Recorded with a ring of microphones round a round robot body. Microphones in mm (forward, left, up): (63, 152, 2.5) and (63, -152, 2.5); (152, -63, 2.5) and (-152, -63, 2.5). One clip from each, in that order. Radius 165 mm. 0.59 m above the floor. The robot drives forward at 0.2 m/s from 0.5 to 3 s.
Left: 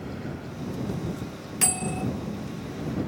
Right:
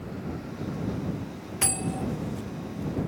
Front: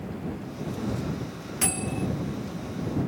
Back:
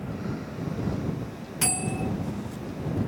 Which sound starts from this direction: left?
A bell, at 1.6 s.